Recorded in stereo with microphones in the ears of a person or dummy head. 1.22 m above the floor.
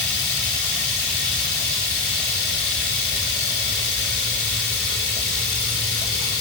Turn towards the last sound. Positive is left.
turn(degrees=65)  # may be behind; listen again after turning